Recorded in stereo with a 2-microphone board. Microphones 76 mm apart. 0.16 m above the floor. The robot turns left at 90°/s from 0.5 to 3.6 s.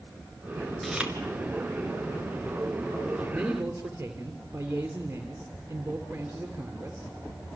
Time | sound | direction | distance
0.8 | chewing | 5° right (ahead or behind) | 2 m
3.3 | a man speaking | 5° left (ahead or behind) | 3 m